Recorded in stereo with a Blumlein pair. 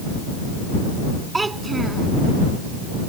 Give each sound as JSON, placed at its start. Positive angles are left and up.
{"t": 1.3, "sound": "a child speaking", "azimuth_deg": -10}